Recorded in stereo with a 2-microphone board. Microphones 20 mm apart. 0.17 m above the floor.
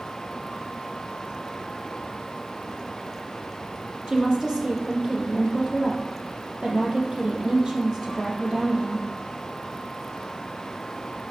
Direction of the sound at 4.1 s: 45° right (ahead or behind).